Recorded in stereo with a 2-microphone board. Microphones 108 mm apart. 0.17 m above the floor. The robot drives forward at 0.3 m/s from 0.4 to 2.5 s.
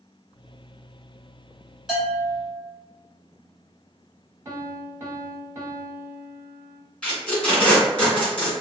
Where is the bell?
5° right (ahead or behind), 1.8 m.